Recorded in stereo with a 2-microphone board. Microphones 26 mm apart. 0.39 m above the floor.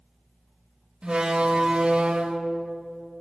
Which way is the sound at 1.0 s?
40° right (ahead or behind).